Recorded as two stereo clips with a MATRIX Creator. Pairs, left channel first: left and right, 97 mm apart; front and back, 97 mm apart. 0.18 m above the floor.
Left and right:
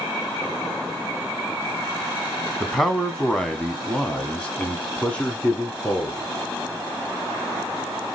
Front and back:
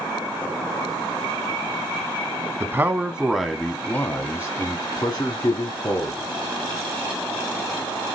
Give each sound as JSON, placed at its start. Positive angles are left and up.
{"t": 2.6, "sound": "a man speaking", "azimuth_deg": 175, "distance_m": 1.1}